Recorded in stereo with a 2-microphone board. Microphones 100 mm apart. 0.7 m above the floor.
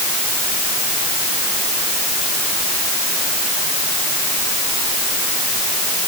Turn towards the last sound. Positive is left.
No sound to turn to.